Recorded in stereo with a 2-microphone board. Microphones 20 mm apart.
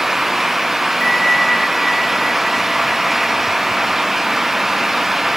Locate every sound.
1.0 s a bell: 20° left (ahead or behind)